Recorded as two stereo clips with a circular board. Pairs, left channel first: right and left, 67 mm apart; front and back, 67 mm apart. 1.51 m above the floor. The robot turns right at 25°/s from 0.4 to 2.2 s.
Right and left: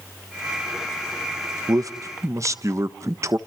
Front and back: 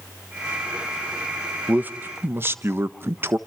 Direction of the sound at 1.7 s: 110° left.